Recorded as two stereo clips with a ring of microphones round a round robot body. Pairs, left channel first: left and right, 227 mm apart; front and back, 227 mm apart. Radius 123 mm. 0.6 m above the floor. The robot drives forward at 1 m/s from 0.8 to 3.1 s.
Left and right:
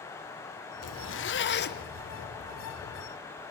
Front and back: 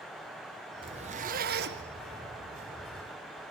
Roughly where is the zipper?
Left.